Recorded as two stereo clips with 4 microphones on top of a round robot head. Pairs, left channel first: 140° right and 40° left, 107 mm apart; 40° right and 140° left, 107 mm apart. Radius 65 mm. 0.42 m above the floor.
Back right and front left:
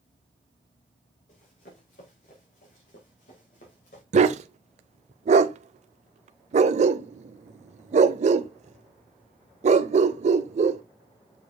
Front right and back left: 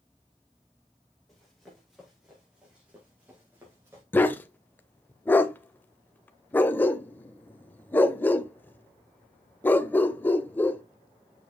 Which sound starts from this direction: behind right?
Running footsteps, at 1.3 s.